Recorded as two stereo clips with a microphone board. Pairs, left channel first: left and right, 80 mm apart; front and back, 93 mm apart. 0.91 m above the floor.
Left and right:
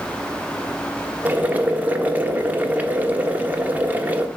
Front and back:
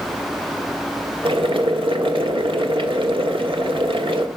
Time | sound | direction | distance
1.2 | boiling | 160° right | 1.3 m